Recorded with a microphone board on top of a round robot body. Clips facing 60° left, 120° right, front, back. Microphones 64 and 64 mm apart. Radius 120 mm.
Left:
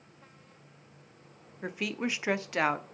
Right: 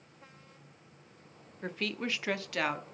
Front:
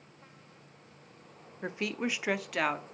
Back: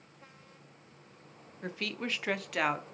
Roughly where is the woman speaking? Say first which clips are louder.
Left 2 dB, front 3 dB; ahead.